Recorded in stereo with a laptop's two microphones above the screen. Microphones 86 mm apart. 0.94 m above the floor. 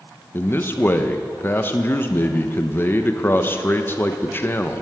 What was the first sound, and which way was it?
A man speaking, 25° left (ahead or behind).